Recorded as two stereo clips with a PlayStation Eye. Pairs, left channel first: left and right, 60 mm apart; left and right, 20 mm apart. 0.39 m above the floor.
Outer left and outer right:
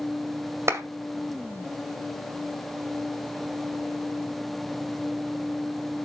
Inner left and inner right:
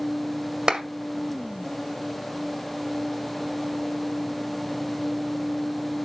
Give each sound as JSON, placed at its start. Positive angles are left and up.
{"t": 0.7, "sound": "a clap", "side_deg": -50, "distance_m": 1.8}